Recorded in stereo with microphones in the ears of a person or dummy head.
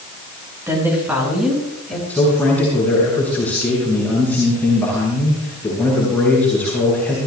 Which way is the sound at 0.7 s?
10° right (ahead or behind).